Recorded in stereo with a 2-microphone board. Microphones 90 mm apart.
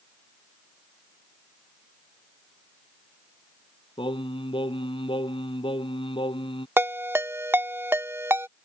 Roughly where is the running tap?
I don't hear a running tap.